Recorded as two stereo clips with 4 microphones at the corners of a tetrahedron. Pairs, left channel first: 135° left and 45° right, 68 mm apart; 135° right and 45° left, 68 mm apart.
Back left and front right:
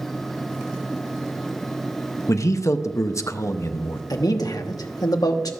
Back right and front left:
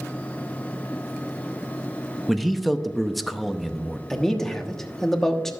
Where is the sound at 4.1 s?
140° left, 1.1 m.